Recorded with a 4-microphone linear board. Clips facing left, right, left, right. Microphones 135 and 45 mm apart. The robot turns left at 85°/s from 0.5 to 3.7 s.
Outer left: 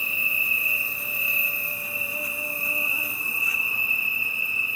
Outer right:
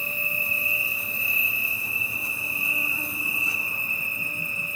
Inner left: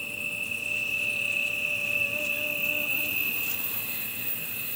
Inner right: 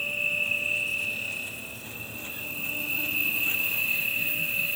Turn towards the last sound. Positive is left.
turn(degrees=-45)